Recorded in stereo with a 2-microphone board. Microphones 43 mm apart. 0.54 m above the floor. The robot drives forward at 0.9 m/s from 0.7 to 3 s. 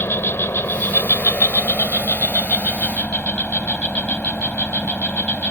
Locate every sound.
0.0 s an insect: 65° left (ahead or behind); by 5.5 s 35° left (ahead or behind)